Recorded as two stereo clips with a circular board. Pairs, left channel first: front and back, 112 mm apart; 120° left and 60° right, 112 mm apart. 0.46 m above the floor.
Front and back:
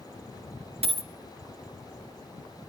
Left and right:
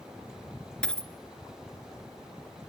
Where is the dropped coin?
160° right, 0.9 m.